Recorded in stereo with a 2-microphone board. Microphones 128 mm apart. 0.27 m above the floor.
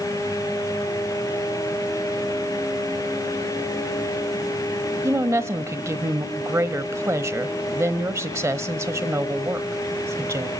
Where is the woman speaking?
20° right (ahead or behind), 1.1 m.